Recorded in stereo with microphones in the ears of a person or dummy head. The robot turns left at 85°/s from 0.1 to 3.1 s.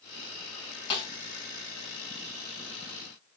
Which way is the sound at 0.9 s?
30° left (ahead or behind).